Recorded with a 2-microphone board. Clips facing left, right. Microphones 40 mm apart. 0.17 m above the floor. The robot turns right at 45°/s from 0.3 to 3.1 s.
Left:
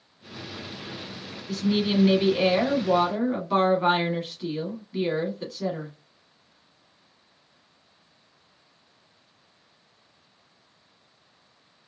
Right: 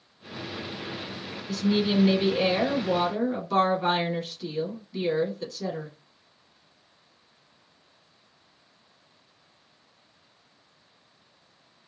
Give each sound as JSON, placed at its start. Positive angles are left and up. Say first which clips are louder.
{"t": 1.5, "sound": "a woman speaking", "louder": "even", "side_deg": 10, "distance_m": 1.1}